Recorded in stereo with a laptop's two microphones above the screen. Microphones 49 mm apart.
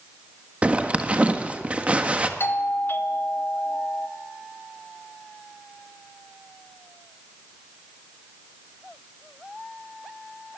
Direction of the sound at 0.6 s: 25° right (ahead or behind).